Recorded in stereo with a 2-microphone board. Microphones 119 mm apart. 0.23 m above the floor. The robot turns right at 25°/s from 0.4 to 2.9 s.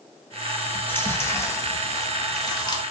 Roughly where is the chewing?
Ahead left.